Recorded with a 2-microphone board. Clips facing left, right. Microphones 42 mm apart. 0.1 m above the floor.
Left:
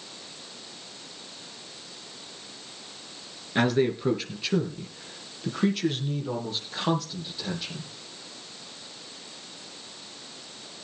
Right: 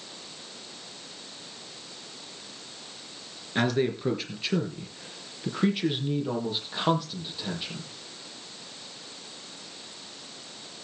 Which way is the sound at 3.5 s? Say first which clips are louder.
Left 2 dB; 5° left (ahead or behind).